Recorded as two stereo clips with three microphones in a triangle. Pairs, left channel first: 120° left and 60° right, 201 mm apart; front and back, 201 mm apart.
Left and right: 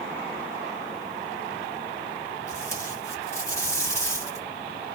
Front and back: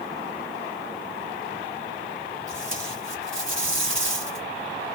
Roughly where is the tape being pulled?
Behind.